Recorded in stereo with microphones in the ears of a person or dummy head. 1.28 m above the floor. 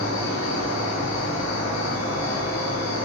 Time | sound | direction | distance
0.0 | an insect | 55° left (ahead or behind) | 1.6 m